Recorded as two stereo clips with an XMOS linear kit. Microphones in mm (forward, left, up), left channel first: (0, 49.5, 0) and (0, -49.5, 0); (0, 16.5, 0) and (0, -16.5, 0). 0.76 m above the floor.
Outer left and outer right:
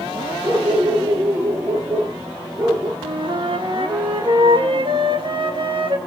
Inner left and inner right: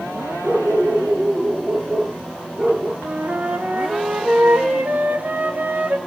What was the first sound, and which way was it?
A dog barking, 30° right (ahead or behind).